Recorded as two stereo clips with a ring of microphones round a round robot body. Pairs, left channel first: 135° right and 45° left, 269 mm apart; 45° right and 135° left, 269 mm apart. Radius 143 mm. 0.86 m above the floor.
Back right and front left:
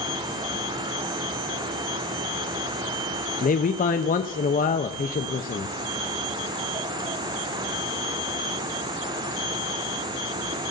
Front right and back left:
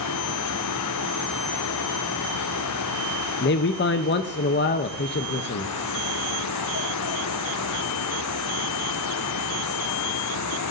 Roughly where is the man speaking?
Right.